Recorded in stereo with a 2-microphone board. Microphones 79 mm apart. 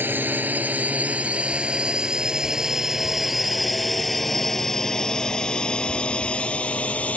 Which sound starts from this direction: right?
A drone, at 0.0 s.